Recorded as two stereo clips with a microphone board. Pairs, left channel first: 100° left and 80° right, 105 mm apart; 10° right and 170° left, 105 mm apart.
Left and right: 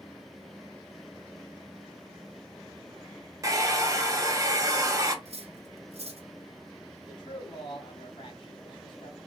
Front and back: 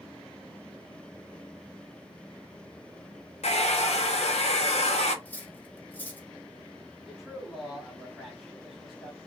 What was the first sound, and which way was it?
A hair dryer, 15° right.